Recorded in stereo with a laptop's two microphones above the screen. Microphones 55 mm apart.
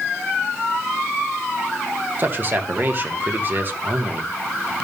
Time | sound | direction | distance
2.2 | a man speaking | 40° right (ahead or behind) | 1.1 m